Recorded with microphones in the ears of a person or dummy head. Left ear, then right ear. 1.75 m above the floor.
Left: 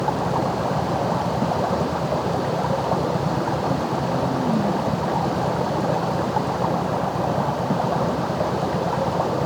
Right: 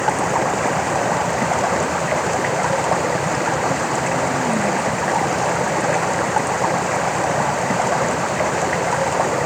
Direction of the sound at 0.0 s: 60° right (ahead or behind).